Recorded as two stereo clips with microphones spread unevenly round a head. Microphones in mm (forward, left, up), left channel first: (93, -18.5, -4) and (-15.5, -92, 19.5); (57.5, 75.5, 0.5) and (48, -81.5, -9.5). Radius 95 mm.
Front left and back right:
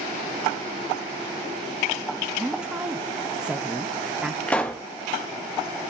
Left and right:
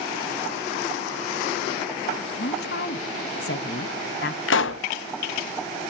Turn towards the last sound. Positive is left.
turn(degrees=115)